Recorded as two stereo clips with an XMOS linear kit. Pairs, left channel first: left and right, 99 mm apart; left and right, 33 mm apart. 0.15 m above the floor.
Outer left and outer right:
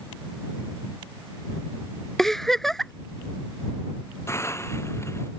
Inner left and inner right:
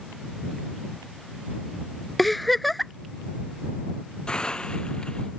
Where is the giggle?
5° left (ahead or behind).